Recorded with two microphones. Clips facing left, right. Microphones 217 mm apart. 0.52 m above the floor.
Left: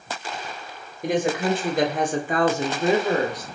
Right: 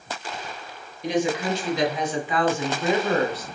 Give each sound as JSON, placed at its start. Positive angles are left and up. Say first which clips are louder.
{"t": 1.0, "sound": "a woman speaking", "louder": "left 2 dB", "side_deg": 50, "distance_m": 2.0}